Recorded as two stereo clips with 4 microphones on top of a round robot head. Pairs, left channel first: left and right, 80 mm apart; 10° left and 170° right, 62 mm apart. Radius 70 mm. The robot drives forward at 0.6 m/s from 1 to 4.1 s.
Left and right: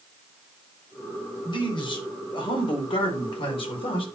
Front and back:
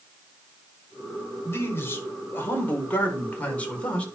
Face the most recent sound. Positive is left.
turn(degrees=80)